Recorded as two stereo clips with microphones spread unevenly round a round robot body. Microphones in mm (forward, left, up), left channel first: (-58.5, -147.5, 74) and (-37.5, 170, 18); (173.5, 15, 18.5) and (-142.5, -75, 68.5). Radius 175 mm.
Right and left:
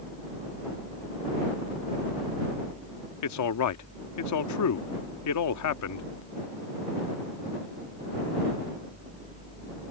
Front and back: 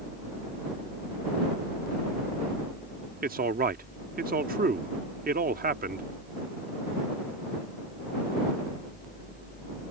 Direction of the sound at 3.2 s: 100° right.